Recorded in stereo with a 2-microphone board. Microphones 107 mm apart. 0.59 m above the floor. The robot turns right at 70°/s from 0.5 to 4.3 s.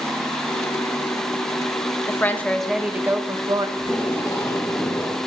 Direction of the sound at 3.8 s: 5° right.